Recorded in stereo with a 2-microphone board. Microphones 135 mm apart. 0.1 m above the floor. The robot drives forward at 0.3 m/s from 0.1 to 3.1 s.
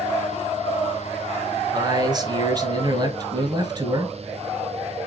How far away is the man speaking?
About 1.2 m.